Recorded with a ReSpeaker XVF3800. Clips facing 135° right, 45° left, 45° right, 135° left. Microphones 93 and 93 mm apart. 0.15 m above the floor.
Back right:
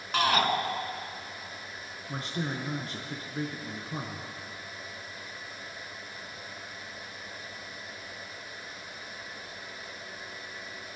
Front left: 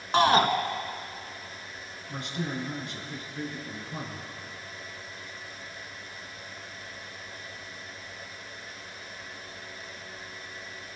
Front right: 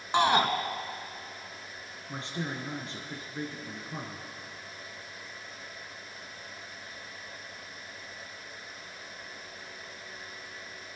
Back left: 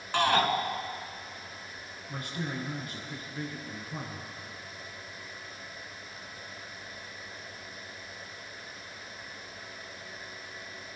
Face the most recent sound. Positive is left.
turn(degrees=-100)